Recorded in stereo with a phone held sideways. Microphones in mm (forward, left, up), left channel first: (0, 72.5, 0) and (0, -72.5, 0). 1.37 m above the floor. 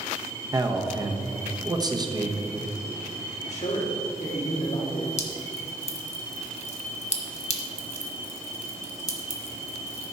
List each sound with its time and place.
0.5 s a man speaking: 30° right (ahead or behind), 1.0 m
3.5 s a man speaking: 55° left (ahead or behind), 3 m
5.2 s dripping: 50° left (ahead or behind), 1.1 m